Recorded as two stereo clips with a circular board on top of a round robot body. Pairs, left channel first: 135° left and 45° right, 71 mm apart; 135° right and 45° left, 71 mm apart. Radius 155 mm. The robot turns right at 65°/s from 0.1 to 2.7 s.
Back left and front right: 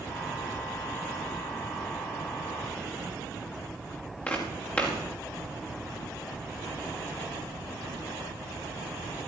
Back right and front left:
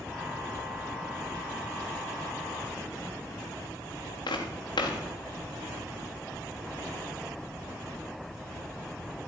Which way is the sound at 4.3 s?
155° right.